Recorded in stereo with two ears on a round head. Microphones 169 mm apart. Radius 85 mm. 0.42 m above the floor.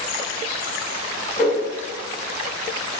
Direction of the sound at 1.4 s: 40° left (ahead or behind).